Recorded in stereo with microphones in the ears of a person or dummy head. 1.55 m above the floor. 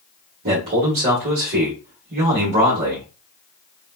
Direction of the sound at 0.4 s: 35° right (ahead or behind).